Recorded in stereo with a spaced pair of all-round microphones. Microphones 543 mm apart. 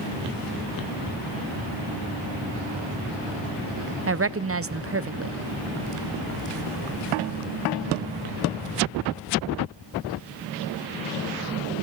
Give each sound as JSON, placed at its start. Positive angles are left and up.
{"t": 4.1, "sound": "a woman speaking", "side_deg": -25, "distance_m": 0.5}